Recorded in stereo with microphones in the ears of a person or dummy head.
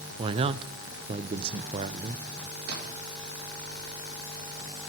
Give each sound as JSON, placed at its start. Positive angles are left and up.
{"t": 0.2, "sound": "a man speaking", "side_deg": -25, "distance_m": 0.5}
{"t": 2.7, "sound": "a splash", "side_deg": -75, "distance_m": 2.5}